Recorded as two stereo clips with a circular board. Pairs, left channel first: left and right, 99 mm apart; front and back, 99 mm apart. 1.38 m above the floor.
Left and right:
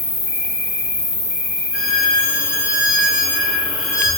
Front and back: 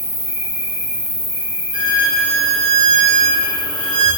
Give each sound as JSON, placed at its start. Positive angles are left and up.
{"t": 0.0, "sound": "an insect", "azimuth_deg": -60, "distance_m": 1.9}
{"t": 1.7, "sound": "a violin", "azimuth_deg": -165, "distance_m": 1.9}